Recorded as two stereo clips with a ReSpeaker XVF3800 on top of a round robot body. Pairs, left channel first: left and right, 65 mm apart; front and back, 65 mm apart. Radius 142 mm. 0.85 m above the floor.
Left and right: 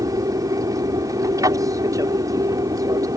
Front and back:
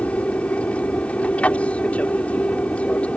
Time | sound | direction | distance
0.0 | an aircraft | 70° right | ?